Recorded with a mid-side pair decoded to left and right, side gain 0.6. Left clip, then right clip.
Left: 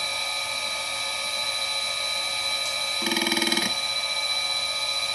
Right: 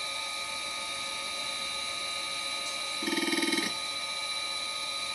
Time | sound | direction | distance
0.0 | a machine running | 70° left | 0.9 m